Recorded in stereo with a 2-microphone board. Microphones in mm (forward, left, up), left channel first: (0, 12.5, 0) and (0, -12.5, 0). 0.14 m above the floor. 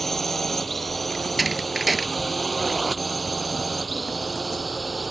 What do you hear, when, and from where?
0.0 s a drone: 10° left (ahead or behind); by 5.1 s 5° right (ahead or behind)
1.1 s a door slam: 5° right (ahead or behind)